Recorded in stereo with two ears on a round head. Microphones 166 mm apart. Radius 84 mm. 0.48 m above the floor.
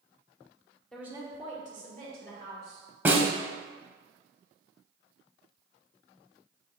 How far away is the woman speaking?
About 0.7 m.